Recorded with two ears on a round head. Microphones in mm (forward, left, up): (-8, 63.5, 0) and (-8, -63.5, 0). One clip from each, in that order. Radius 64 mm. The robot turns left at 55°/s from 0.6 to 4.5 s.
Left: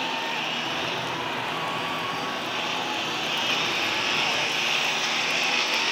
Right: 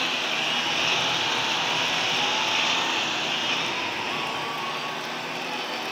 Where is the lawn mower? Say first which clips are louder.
Right 2 dB; 25° right (ahead or behind); by 5.9 s 60° left (ahead or behind).